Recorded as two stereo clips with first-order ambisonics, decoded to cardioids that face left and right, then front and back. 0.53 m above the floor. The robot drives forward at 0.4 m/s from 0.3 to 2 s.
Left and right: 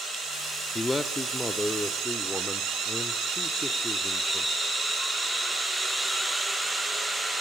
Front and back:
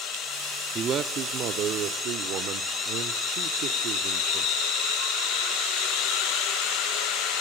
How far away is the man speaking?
About 0.8 m.